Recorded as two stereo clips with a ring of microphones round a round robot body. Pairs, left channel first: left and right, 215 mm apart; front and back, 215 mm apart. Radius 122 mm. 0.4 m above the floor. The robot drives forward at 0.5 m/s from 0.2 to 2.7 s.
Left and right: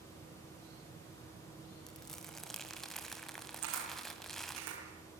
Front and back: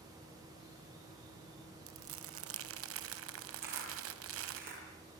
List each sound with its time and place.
1.9 s crumpling: straight behind, 1.4 m
3.6 s a camera shutter: 125° right, 8 m